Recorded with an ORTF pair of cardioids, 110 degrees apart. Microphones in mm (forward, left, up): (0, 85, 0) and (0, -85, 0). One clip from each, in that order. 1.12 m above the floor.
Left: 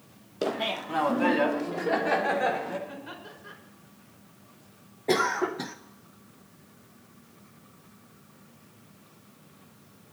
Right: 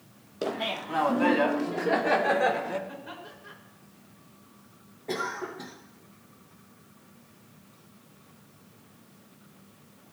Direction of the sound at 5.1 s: 40° left.